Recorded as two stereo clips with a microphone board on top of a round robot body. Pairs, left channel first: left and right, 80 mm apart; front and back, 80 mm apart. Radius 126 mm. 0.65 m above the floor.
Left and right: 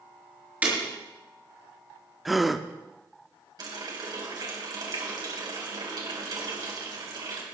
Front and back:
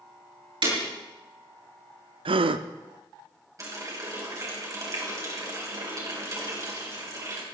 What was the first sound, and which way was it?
Breaking glass, 160° right.